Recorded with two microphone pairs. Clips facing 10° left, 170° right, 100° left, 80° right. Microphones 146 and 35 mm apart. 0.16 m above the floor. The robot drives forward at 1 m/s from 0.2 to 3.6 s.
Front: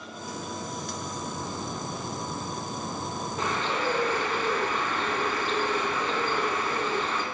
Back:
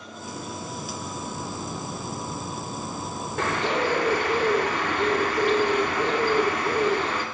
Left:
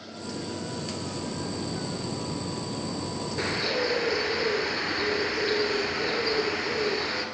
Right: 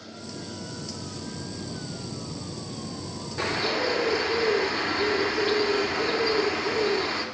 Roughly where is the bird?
Behind.